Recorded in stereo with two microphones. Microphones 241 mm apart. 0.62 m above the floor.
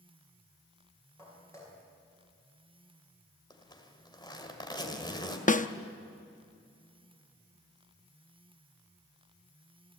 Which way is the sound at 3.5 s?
15° left (ahead or behind).